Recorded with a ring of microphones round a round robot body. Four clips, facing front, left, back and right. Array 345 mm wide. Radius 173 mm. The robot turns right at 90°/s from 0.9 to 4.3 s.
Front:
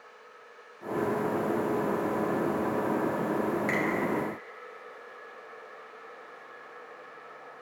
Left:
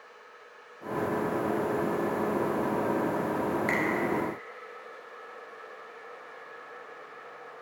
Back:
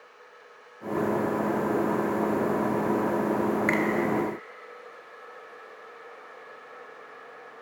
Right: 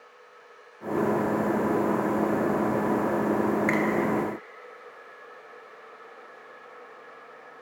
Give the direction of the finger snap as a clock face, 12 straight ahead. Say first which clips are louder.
Right 4 dB, back 4 dB; 5 o'clock.